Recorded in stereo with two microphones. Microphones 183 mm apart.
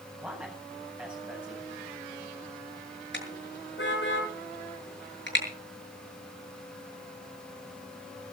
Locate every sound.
0.2 s a man speaking: 5° right (ahead or behind), 8.5 m
3.1 s a car horn: 75° left (ahead or behind), 7.5 m